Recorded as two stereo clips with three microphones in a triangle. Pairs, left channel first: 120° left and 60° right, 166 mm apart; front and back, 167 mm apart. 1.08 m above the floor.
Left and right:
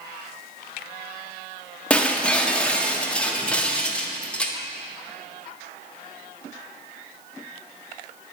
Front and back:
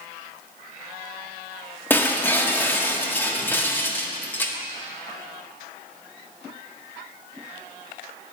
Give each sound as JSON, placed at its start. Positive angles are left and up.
{"t": 1.9, "sound": "breaking glass", "azimuth_deg": 50, "distance_m": 0.5}